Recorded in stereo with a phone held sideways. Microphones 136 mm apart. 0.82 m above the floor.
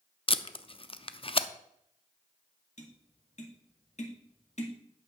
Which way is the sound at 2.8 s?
55° left (ahead or behind).